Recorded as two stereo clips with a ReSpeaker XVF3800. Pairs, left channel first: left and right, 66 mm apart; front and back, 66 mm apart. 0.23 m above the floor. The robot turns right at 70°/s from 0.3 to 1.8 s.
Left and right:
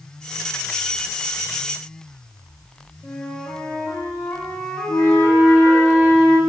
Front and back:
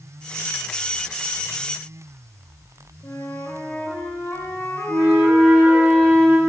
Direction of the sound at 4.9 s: 125° left.